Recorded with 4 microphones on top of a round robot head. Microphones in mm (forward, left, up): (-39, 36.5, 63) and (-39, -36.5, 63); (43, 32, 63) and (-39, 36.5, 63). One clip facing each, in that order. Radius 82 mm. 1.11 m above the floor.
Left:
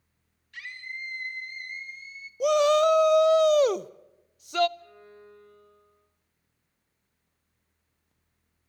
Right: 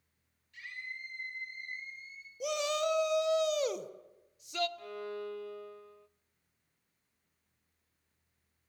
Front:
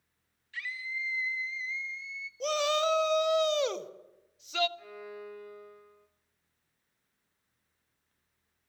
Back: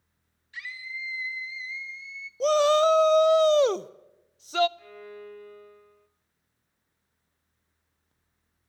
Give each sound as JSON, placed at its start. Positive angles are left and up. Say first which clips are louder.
{"t": 0.5, "sound": "a scream", "louder": "left 5 dB, front 1 dB", "azimuth_deg": 105, "distance_m": 3.0}
{"t": 2.4, "sound": "a shout", "louder": "left 13 dB, back 9 dB", "azimuth_deg": 125, "distance_m": 0.8}
{"t": 4.8, "sound": "a violin", "louder": "right 10 dB, back 1 dB", "azimuth_deg": -85, "distance_m": 0.5}